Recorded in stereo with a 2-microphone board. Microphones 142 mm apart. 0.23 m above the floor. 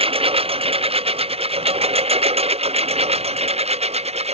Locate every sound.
0.0 s a lawn mower: 45° right (ahead or behind); by 4.3 s 50° right (ahead or behind)